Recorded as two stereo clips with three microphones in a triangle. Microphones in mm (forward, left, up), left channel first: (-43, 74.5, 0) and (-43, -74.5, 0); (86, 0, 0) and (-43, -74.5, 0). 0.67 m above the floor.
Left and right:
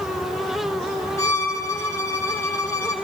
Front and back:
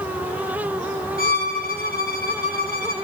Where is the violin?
20° left, 1.8 m.